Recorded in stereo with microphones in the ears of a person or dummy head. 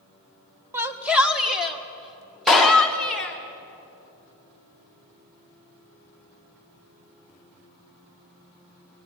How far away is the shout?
About 1.1 m.